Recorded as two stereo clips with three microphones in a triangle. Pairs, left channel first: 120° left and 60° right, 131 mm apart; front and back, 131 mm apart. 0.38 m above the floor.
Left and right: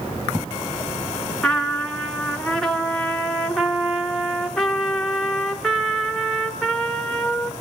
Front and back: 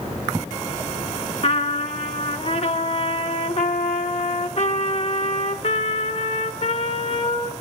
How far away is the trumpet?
About 1.7 m.